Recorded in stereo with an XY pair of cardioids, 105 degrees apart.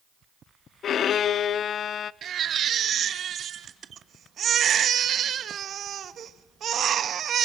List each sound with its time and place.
0.8 s a violin: 60° left, 0.5 m
2.2 s a baby crying: 55° right, 1.2 m